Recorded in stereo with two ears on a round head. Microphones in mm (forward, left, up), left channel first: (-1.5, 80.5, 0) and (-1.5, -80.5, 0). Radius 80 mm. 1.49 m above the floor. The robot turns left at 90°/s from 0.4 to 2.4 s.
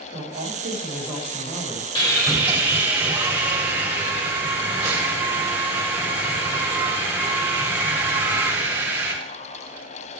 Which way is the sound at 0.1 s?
115° right.